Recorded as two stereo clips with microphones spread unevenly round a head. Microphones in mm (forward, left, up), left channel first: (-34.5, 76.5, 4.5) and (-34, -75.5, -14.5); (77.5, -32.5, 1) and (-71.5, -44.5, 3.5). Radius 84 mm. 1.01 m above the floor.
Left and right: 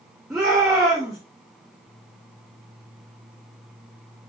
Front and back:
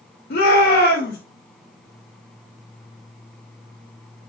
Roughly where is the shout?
Ahead.